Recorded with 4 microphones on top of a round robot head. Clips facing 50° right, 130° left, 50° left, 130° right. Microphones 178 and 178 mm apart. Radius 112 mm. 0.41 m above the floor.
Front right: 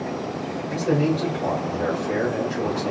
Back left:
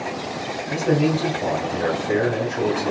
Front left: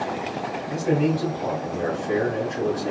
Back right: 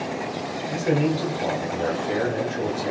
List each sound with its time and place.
0.7 s a man speaking: 170° left, 2.5 m